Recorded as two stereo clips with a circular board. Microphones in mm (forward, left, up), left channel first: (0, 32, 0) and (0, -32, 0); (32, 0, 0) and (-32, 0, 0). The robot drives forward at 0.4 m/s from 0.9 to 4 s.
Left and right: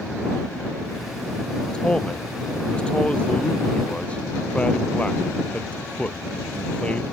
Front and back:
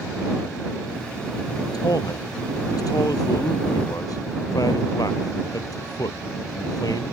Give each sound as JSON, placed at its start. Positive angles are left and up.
{"t": 1.7, "sound": "a man speaking", "azimuth_deg": 15}